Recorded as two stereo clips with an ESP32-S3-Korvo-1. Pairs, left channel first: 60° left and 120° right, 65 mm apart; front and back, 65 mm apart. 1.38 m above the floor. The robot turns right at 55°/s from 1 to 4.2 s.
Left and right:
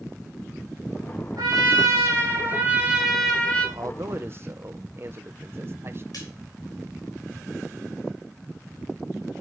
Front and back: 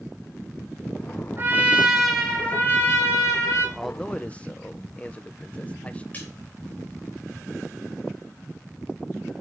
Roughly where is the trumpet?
Behind right.